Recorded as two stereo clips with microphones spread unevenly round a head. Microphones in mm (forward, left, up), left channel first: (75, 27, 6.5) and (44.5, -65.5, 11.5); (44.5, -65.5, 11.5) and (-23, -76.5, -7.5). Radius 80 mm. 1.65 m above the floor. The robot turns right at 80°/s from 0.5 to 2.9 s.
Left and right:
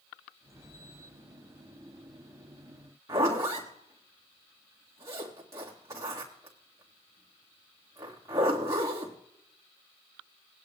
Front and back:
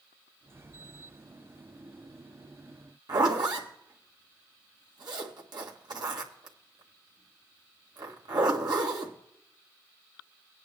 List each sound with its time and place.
3.1 s a zipper: 165° right, 1.6 m